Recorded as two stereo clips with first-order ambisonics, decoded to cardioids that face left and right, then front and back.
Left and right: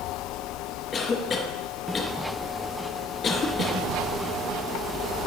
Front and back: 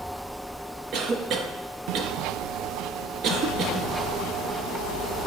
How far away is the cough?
About 0.6 m.